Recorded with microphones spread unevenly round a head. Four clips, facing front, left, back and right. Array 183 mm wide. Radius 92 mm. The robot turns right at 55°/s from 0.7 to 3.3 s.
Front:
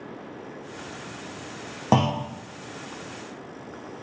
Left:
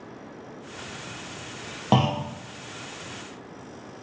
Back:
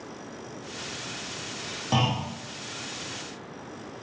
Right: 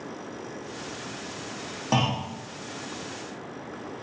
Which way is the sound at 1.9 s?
35° left.